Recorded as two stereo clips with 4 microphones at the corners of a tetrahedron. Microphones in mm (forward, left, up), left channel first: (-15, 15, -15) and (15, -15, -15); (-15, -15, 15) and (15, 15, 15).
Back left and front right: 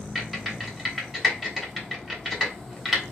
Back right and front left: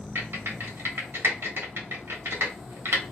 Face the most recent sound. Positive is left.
turn(degrees=35)